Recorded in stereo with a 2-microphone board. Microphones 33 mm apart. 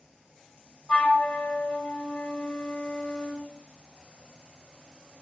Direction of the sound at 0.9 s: 55° left (ahead or behind).